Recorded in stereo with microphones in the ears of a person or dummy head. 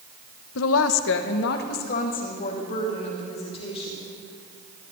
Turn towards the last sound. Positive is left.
turn(degrees=30)  # may be behind; listen again after turning